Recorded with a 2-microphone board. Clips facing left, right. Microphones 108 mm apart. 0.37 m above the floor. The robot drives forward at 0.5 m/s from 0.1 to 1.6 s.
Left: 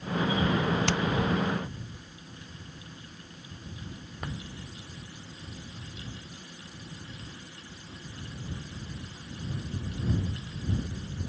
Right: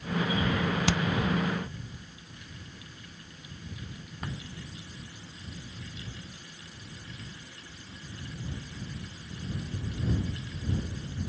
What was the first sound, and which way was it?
Hammering, 5° right (ahead or behind).